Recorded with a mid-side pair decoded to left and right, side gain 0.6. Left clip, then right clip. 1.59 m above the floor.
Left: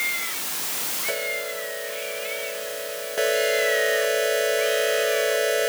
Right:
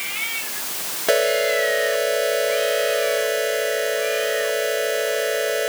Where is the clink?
I don't hear a clink.